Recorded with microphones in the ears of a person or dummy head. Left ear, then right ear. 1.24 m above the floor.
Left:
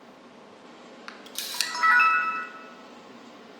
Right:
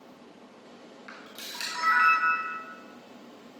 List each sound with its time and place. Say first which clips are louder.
1.1 s a camera shutter: left 5 dB; 65° left (ahead or behind), 0.7 m